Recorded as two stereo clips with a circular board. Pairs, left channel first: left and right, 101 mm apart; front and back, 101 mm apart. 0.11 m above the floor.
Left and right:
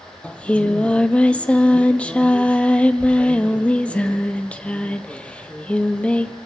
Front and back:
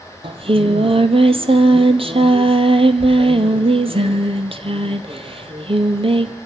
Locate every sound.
0.2 s singing: 170° left, 1.1 m